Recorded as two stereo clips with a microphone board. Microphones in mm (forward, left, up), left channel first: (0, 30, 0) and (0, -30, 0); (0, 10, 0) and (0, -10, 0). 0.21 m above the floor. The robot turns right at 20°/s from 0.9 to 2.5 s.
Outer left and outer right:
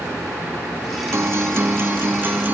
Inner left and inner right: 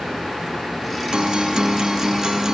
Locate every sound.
1.1 s a guitar: 50° right (ahead or behind), 0.7 m; by 2.5 s 30° right (ahead or behind), 0.7 m